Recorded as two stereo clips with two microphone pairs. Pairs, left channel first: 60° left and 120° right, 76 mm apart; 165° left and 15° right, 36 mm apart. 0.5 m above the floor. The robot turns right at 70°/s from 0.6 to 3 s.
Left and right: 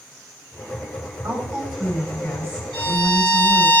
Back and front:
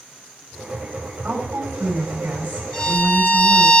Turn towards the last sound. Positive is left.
turn(degrees=85)